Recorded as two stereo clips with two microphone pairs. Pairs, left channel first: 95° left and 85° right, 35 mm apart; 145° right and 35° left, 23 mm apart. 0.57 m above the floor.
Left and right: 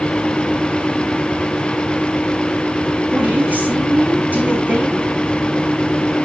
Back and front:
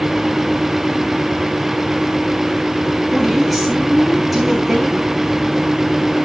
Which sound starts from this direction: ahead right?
A woman speaking, at 3.1 s.